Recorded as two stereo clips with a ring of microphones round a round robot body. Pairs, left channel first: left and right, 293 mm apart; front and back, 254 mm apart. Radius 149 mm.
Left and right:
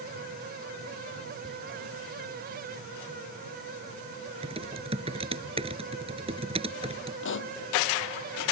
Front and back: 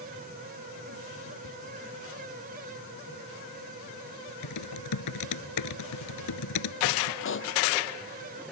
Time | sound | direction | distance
1.4 | whispering | 20° right | ?
4.4 | typing on a keyboard | 20° right | ?
7.2 | a pop | 40° left | ?